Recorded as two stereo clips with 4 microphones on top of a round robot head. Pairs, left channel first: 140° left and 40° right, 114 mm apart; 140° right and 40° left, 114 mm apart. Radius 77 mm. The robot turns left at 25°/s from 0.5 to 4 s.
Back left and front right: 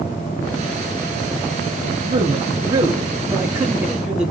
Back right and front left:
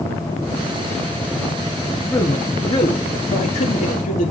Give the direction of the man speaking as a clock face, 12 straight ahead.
2 o'clock.